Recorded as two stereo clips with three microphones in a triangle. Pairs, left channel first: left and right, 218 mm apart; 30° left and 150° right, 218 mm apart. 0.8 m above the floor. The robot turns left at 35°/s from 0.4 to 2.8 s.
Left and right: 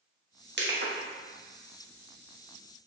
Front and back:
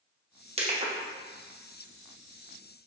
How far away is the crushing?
About 1.4 m.